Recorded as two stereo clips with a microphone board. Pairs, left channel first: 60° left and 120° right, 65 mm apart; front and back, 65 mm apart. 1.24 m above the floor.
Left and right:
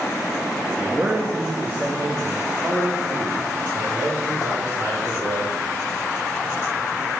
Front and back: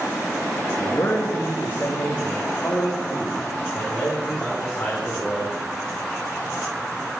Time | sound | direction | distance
0.8 | a man speaking | 50° right | 2.5 m